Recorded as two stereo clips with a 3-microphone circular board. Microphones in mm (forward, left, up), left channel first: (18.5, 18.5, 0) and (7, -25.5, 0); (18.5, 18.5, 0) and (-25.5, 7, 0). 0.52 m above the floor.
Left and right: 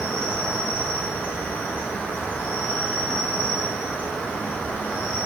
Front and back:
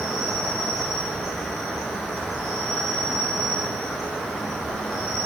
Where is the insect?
95° left, 0.8 m.